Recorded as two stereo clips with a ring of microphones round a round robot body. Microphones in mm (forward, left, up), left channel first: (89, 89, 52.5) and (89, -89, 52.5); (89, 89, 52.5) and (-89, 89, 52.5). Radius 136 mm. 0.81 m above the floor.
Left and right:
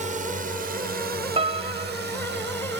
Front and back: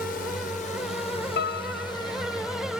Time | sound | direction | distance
0.0 | a drone | 45° right | ?
1.4 | a piano | 35° right | ?